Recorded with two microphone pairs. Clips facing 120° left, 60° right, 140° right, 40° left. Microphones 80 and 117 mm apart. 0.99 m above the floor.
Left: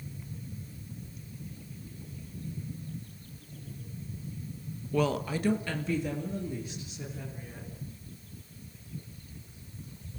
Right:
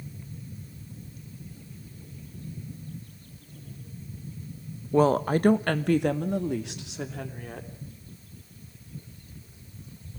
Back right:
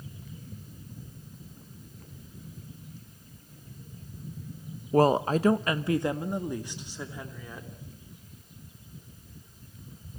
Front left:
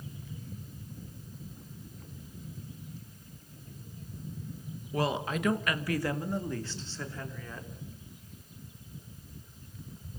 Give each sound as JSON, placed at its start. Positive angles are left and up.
{"t": 4.9, "sound": "a woman speaking", "azimuth_deg": -120, "distance_m": 1.0}